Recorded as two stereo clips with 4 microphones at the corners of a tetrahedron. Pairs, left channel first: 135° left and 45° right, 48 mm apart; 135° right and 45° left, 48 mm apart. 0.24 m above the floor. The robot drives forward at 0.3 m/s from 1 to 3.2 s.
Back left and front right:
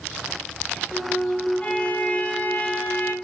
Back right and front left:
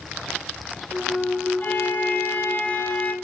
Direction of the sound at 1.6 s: 170° right.